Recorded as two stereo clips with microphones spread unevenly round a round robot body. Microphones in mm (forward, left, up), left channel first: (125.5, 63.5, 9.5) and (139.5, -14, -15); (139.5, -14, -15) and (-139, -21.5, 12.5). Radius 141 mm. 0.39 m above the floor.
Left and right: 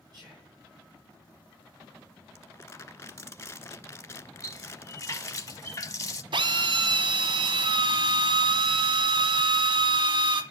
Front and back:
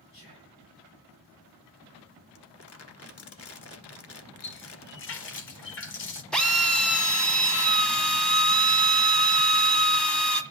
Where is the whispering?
50° right, 6.5 m.